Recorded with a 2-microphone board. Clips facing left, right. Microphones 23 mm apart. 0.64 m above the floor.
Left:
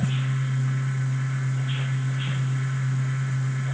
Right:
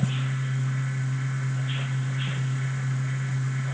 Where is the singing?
No singing in this recording.